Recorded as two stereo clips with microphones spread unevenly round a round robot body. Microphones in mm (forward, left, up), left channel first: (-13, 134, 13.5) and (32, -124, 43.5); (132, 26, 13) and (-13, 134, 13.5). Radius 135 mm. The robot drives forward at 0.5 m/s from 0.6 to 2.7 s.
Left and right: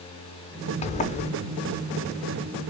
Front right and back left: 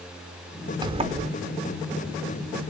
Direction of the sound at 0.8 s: 105° left.